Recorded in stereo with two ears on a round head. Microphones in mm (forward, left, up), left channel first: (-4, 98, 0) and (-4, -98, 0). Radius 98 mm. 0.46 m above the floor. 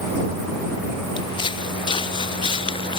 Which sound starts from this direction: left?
Footsteps, at 1.2 s.